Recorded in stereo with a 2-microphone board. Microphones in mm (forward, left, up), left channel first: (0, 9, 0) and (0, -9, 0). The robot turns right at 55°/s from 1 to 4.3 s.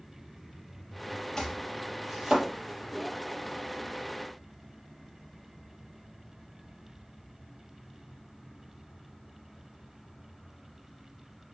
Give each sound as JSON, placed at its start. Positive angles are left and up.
{"t": 1.4, "sound": "chopping", "side_deg": 30, "distance_m": 6.0}